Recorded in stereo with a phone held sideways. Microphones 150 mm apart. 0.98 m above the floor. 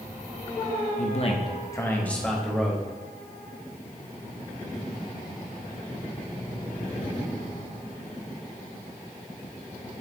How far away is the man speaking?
About 1.0 m.